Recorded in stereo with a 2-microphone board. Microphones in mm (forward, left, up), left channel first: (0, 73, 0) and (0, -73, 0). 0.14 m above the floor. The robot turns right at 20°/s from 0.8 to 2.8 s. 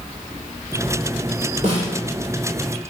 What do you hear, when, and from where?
1.6 s a snare drum: 45° right (ahead or behind), 2.5 m